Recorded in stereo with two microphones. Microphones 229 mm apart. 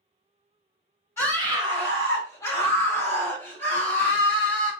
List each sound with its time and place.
1.2 s a scream: 10° left (ahead or behind), 1.1 m